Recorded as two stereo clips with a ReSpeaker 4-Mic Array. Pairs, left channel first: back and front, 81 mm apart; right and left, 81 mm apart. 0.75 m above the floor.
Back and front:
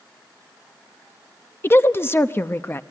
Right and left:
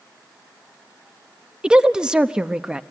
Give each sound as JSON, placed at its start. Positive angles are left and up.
{"t": 1.6, "sound": "a woman speaking", "azimuth_deg": 160, "distance_m": 0.7}